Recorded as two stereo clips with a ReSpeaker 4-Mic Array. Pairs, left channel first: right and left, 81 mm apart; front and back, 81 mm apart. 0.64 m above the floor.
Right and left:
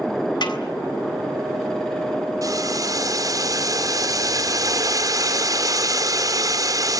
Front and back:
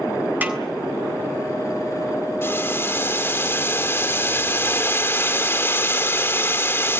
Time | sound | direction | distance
0.4 | a snare drum | 115° right | 3.5 m
2.4 | boiling | 55° left | 2 m